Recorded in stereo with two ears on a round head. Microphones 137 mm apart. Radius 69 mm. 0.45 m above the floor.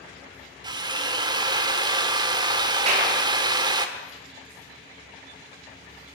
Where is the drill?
25° right (ahead or behind), 1.5 m.